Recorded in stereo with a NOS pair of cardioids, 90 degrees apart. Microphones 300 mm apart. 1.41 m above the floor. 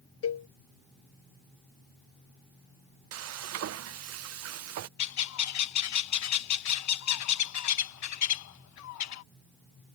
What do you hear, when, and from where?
0.2 s a cowbell: 50° left
3.1 s frying: 55° right
5.0 s a bird: 65° left